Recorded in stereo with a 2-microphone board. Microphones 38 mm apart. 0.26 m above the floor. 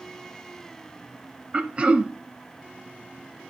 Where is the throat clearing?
30° right (ahead or behind), 0.7 m.